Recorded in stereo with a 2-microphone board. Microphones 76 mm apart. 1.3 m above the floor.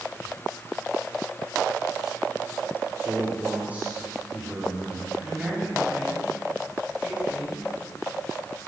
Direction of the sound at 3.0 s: 20° right (ahead or behind).